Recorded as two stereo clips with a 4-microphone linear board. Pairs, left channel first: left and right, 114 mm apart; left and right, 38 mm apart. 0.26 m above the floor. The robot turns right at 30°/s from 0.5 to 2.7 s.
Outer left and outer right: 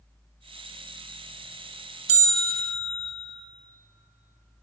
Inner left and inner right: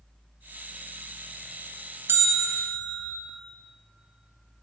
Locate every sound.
2.1 s a bell: 75° right (ahead or behind), 0.9 m; by 3.1 s 80° right, 0.9 m